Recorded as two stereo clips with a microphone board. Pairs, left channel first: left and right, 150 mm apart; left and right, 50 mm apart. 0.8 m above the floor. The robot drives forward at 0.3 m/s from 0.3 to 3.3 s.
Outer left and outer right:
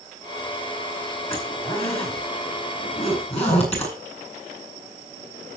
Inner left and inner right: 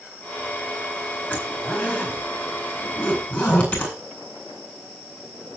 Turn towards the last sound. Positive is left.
turn(degrees=45)  # may be behind; listen again after turning